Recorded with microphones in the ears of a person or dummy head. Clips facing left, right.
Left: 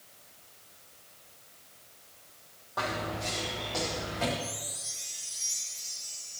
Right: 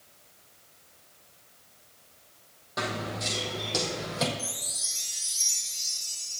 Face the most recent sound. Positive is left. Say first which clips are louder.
# left 2 dB
turn(degrees=-70)  # may be behind; listen again after turning